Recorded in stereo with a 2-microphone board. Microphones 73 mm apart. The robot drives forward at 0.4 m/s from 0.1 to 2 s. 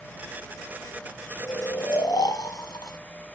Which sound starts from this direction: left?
Snoring, at 1.4 s.